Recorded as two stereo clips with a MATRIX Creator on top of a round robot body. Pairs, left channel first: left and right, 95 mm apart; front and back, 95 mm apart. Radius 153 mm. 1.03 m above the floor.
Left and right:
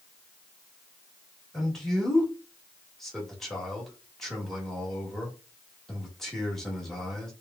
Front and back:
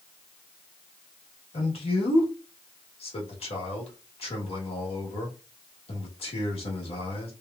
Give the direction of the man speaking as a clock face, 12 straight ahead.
12 o'clock.